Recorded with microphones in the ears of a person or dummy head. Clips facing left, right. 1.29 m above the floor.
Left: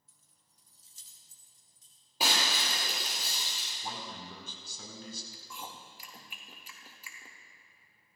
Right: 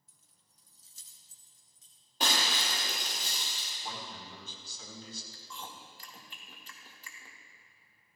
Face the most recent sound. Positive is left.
turn(degrees=10)  # may be behind; listen again after turning